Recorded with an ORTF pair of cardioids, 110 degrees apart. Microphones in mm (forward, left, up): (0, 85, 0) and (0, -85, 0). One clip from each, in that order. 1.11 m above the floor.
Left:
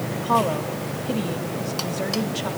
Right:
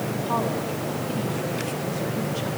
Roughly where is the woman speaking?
Ahead left.